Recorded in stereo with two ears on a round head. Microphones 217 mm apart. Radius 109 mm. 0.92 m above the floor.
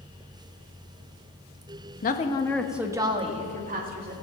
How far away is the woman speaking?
About 1.2 m.